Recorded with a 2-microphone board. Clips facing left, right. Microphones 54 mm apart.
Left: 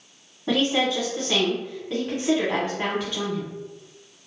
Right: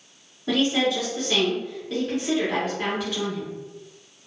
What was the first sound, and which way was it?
A woman speaking, 20° left (ahead or behind).